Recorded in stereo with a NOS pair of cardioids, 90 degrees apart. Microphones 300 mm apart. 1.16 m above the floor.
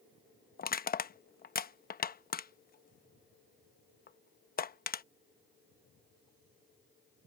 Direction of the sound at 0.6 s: 30° left.